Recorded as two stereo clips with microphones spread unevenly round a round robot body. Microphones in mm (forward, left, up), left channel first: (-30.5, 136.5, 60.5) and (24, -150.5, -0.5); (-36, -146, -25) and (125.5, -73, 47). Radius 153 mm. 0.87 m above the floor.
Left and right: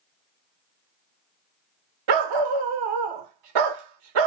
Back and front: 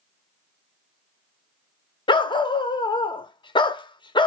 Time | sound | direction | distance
2.1 | a dog barking | 80° right | 0.8 m